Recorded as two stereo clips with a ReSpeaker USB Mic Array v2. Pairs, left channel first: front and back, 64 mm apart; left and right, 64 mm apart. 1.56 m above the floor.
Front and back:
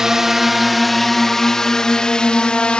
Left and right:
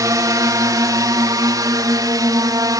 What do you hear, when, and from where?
0.0 s a drone: 100° right; by 2.8 s 75° right